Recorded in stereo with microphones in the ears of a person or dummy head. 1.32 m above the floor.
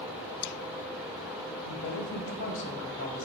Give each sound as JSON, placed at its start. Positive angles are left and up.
{"t": 1.6, "sound": "a woman speaking", "side_deg": 70, "distance_m": 2.0}